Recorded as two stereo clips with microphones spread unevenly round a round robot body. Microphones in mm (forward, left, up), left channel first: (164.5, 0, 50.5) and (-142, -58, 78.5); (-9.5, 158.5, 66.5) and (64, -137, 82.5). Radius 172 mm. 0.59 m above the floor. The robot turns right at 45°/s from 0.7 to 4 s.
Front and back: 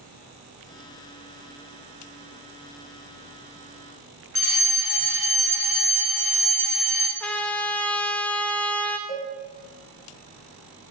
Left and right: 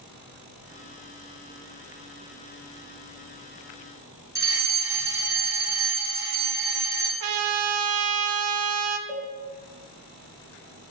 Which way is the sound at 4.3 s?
5° right.